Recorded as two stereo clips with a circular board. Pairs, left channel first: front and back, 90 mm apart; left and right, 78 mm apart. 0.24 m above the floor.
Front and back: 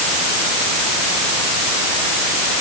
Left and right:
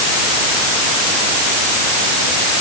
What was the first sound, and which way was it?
Only background noise.